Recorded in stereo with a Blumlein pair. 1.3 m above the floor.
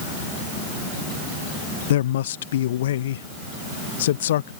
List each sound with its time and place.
1.9 s a man speaking: 60° left